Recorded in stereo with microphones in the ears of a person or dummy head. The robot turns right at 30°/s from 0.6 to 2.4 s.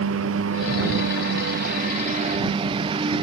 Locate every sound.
0.0 s a lawn mower: 90° right; by 3.2 s 35° right